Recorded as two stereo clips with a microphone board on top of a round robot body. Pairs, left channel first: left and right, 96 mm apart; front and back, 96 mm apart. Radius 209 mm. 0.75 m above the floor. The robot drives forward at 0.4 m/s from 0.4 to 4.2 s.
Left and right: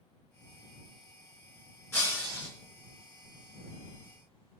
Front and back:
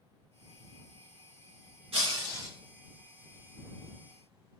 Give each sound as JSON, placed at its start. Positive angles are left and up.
{"t": 1.9, "sound": "breaking glass", "azimuth_deg": 160, "distance_m": 3.0}